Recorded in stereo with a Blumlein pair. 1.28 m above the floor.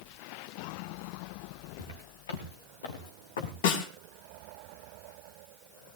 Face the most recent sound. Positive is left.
turn(degrees=55)